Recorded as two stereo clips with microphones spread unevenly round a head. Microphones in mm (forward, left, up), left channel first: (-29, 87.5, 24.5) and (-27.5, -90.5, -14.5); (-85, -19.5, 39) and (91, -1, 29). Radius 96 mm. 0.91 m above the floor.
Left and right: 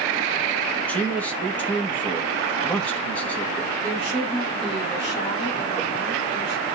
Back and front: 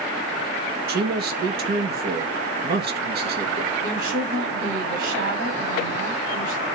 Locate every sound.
0.9 s a man speaking: straight ahead, 1.5 m
3.8 s a woman speaking: 30° left, 4.5 m